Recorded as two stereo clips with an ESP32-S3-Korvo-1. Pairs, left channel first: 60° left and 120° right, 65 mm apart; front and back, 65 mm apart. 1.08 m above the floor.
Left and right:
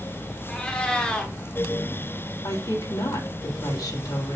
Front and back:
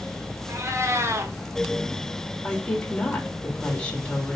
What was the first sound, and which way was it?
A cat meowing, 135° left.